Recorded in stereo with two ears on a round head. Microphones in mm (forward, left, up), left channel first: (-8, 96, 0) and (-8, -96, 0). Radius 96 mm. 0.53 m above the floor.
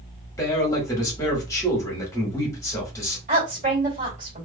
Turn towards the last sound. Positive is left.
turn(degrees=-35)  # may be behind; listen again after turning